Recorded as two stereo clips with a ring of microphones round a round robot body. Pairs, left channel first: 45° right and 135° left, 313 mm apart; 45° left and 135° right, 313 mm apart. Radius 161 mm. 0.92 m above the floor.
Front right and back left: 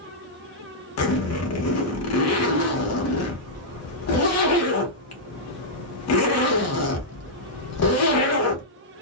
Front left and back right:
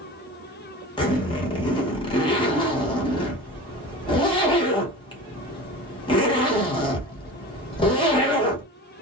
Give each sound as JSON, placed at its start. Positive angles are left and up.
{"t": 1.0, "sound": "a zipper", "azimuth_deg": -25, "distance_m": 0.9}